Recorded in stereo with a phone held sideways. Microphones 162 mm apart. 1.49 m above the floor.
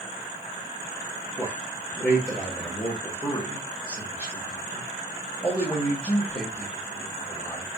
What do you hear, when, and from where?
1.4 s a man speaking: 25° left (ahead or behind), 1.2 m